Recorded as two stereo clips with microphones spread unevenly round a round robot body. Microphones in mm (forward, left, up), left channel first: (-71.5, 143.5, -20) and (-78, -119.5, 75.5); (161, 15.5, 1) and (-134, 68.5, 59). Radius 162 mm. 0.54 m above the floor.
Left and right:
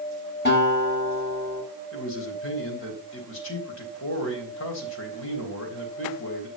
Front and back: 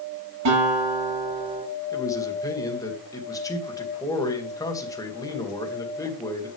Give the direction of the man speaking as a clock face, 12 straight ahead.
10 o'clock.